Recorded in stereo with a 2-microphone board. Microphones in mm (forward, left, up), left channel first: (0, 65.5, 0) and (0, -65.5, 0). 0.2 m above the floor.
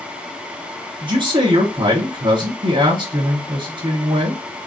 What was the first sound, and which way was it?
A man speaking, 40° right (ahead or behind).